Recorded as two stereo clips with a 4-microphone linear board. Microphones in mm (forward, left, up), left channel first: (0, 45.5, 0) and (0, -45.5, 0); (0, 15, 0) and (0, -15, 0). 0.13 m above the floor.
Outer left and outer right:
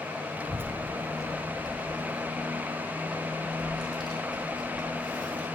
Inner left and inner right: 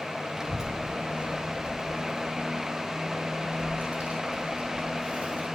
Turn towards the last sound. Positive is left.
turn(degrees=-55)  # may be behind; listen again after turning